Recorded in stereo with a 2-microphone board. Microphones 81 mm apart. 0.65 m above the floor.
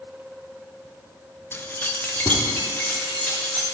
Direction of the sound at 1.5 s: 30° left (ahead or behind).